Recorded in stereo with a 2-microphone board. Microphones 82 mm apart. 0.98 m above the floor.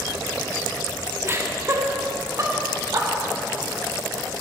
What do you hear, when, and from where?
1.2 s laughter: 30° right (ahead or behind), 1.4 m; by 3.1 s 40° right (ahead or behind), 3 m